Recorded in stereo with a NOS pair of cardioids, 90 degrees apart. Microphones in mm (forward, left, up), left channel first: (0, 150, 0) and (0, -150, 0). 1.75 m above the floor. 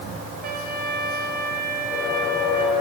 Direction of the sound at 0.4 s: 30° right.